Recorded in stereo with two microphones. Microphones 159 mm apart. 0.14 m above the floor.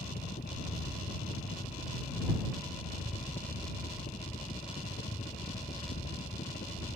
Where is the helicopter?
70° left (ahead or behind).